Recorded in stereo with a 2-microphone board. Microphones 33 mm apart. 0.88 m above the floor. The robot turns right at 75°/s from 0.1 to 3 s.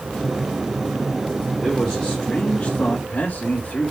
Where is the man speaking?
5° right, 3 m; by 3.9 s 100° left, 3 m.